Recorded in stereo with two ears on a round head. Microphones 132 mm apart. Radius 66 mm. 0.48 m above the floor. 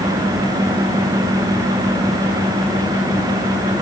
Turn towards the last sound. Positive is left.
No sound to turn to.